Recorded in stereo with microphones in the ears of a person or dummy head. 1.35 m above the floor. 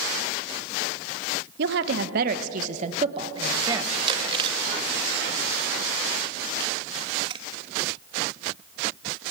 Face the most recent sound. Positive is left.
turn(degrees=-30)  # may be behind; listen again after turning